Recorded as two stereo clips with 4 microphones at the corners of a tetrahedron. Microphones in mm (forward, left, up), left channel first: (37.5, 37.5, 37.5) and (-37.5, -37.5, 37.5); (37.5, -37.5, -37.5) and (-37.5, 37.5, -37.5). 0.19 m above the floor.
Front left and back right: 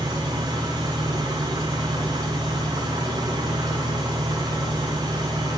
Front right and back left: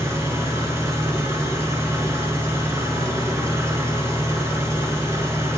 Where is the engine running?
170° right, 1.8 m.